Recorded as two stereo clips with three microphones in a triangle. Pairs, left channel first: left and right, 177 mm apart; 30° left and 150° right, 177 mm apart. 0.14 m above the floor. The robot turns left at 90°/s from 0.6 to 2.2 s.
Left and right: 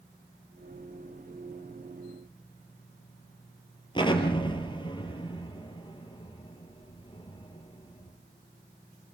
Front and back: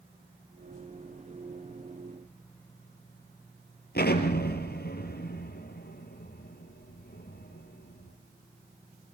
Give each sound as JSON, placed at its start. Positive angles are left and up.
{"t": 4.0, "sound": "an explosion", "azimuth_deg": 30, "distance_m": 4.0}